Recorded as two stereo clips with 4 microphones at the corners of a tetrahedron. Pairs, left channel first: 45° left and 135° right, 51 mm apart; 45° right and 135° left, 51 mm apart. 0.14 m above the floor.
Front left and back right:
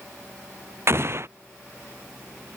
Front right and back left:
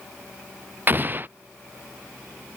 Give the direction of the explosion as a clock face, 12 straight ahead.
6 o'clock.